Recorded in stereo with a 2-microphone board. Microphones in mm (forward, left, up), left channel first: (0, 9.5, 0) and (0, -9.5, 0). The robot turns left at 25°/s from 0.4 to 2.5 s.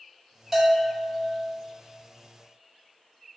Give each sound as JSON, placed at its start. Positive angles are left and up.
{"t": 0.5, "sound": "a bell", "side_deg": -15, "distance_m": 1.0}